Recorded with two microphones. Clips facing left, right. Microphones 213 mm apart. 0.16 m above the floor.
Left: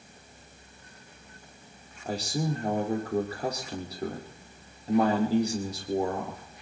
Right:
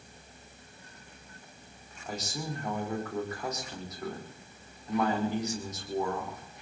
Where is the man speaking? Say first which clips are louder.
Left 7 dB; 35° left (ahead or behind), 5.5 m.